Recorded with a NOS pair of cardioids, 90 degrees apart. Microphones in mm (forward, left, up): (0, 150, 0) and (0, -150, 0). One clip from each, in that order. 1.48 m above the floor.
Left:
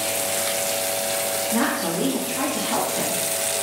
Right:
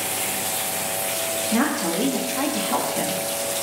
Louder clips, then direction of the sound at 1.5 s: Right 2 dB; 30° right.